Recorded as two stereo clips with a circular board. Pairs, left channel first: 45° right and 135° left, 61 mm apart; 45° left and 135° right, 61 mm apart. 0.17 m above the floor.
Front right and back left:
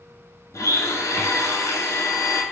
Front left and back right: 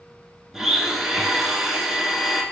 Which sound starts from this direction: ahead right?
A blender, at 0.5 s.